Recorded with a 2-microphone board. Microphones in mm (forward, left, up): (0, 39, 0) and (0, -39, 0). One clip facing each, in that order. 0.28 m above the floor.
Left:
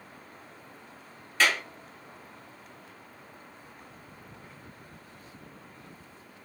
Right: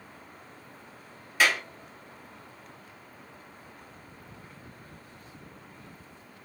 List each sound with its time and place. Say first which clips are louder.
1.4 s a clap: right 1 dB; 10° right (ahead or behind), 1.2 m